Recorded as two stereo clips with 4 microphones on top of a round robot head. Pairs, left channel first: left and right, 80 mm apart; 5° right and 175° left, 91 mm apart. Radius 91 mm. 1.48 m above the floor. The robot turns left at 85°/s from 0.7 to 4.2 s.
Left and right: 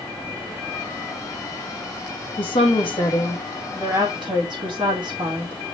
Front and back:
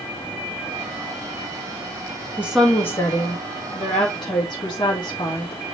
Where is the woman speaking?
105° left, 2 m; by 5.6 s 50° right, 2 m.